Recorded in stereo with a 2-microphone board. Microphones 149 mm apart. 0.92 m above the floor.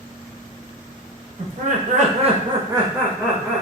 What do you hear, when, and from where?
1.4 s laughter: 70° right (ahead or behind), 1.0 m; by 3.6 s centre (ahead or behind), 1.3 m